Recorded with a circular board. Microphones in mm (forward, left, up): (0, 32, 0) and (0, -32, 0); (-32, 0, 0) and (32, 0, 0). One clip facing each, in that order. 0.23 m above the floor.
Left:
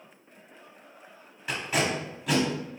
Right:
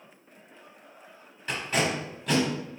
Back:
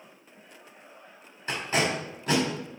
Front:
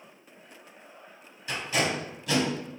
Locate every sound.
1.5 s tape being pulled: 175° left, 1.3 m